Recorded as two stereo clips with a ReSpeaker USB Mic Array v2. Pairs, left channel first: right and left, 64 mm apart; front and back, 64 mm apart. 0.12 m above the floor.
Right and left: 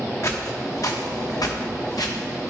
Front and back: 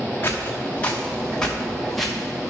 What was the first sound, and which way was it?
Footsteps, 55° right.